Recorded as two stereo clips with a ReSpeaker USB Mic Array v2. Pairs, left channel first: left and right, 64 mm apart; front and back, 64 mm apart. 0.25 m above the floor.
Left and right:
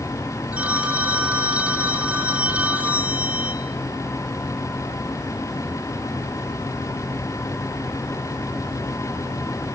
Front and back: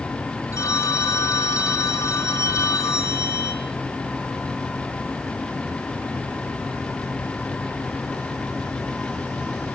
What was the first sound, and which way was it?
A phone ringing, 25° right.